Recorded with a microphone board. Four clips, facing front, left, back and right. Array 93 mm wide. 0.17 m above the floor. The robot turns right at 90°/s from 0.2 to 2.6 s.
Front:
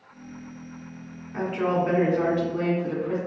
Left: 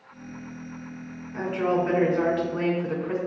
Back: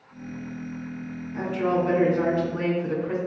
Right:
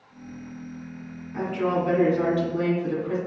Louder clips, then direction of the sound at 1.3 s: Even, even; 5° right.